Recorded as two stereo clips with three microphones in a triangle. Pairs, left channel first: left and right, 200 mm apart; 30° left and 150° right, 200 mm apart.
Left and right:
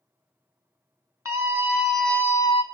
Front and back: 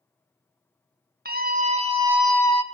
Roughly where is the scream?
Behind.